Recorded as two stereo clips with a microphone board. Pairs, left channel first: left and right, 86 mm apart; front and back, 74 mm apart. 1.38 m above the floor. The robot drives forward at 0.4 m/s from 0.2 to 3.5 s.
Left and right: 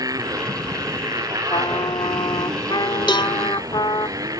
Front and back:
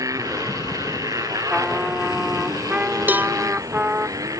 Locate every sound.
0.0 s a motorcycle: 135° right; by 4.4 s 140° right
1.5 s a trumpet: 100° left; by 4.1 s 115° left
3.1 s a cowbell: 115° left